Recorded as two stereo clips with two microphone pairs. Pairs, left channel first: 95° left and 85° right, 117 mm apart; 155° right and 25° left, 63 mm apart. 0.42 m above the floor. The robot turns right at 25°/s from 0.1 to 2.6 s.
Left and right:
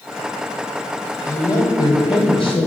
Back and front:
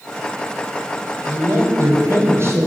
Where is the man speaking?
35° left, 2.0 m; by 2.7 s 65° left, 2.0 m.